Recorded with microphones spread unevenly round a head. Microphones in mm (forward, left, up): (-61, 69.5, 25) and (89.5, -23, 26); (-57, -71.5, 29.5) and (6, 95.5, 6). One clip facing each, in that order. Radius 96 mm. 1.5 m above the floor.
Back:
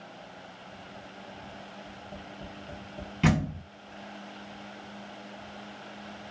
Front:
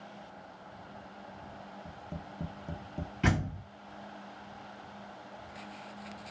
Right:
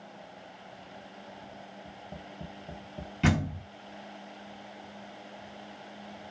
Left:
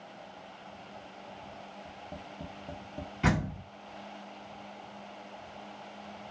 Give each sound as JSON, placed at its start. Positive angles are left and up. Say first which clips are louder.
{"t": 1.9, "sound": "tapping", "louder": "back 1 dB, even", "azimuth_deg": -15, "distance_m": 0.8}
{"t": 3.2, "sound": "a door slam", "louder": "back 6 dB, right 2 dB", "azimuth_deg": -165, "distance_m": 1.5}